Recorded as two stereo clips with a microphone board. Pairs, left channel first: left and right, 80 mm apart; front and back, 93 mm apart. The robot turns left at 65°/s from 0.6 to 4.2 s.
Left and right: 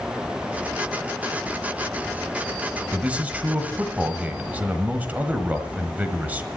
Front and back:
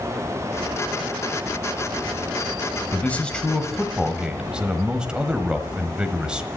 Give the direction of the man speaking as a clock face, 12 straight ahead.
1 o'clock.